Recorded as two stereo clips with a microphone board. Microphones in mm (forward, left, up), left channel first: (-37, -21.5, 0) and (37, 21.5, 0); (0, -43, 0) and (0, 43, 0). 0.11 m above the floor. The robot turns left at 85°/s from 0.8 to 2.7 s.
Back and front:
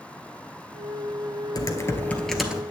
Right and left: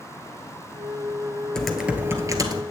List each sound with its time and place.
1.6 s typing on a keyboard: 170° right, 1.0 m; by 2.6 s 100° left, 1.0 m